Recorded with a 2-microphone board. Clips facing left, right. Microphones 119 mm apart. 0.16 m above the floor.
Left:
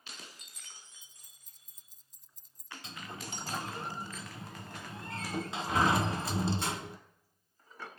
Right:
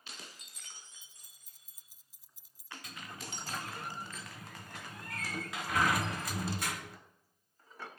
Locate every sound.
1.0 s keys jangling: 5° right (ahead or behind), 1.5 m
2.8 s a sliding door: 25° left (ahead or behind), 0.6 m